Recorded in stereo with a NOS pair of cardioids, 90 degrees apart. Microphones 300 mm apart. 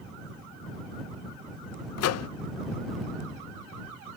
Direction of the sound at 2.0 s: 60° left.